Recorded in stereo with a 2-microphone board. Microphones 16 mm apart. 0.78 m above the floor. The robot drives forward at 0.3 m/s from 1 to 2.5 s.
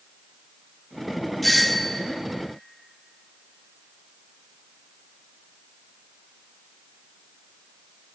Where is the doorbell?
5° left (ahead or behind), 0.8 m.